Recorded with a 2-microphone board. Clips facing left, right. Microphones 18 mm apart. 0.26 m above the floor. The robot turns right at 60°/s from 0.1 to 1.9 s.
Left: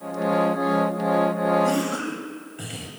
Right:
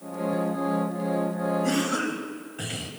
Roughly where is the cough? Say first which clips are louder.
Left 2 dB; centre.